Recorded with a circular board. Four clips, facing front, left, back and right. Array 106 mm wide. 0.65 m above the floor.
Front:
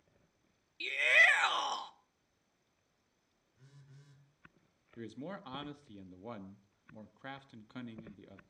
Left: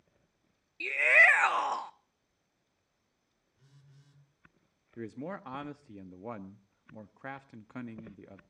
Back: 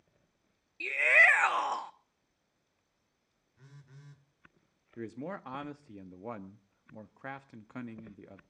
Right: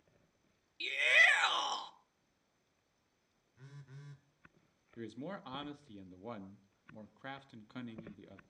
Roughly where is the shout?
Behind left.